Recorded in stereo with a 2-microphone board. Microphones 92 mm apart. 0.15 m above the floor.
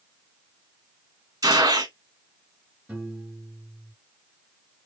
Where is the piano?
10° right (ahead or behind), 2.5 m.